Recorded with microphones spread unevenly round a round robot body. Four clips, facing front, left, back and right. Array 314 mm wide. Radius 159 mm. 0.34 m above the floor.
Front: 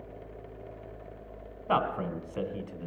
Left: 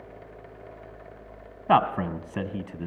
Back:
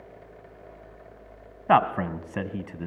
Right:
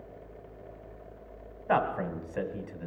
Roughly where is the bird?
I don't hear a bird.